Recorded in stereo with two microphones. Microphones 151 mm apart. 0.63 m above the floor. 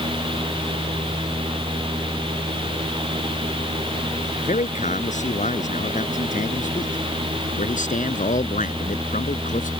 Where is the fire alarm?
I don't hear a fire alarm.